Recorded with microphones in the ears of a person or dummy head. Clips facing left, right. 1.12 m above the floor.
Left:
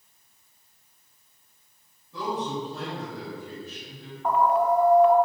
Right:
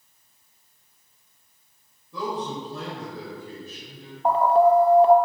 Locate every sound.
2.1 s a man speaking: 80° right, 2.5 m
4.2 s an alarm: 30° right (ahead or behind), 0.5 m